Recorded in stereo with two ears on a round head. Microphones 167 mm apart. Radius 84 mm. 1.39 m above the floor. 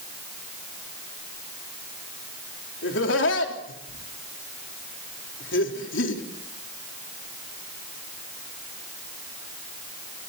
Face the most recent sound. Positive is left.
turn(degrees=70)  # may be behind; listen again after turning